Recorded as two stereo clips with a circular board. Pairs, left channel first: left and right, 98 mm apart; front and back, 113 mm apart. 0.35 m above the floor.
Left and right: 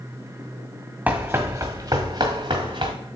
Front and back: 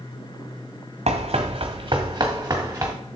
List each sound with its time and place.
1.1 s running footsteps: 160° right, 1.1 m; by 2.9 s 110° right, 2.0 m